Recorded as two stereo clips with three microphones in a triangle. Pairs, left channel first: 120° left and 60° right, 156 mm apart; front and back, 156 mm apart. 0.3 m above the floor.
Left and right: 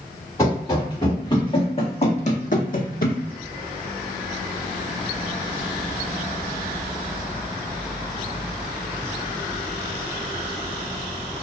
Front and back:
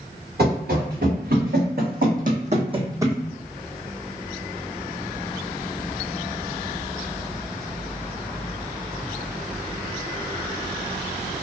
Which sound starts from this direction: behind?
Running footsteps, at 0.4 s.